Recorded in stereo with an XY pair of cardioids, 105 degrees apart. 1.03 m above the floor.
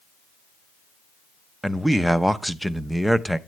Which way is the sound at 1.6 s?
5° right.